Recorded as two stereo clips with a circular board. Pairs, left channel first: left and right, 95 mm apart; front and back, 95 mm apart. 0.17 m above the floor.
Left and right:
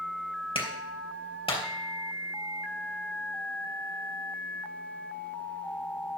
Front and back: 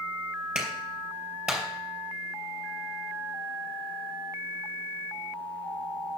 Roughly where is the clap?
Left.